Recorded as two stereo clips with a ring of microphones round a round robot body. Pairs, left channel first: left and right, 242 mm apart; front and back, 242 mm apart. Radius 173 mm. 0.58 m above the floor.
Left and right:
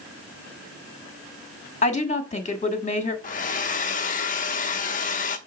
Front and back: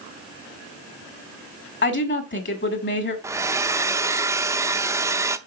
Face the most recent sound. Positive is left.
turn(degrees=110)